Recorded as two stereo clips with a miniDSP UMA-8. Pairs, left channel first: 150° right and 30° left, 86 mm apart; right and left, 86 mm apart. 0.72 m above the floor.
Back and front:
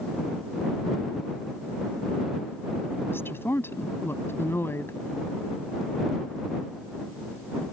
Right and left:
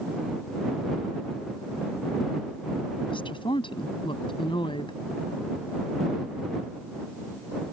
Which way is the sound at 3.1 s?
85° right.